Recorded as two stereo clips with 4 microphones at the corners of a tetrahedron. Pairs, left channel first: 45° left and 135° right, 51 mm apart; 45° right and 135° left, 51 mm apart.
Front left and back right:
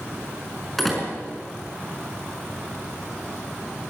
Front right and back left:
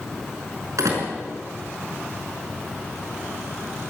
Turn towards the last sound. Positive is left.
turn(degrees=130)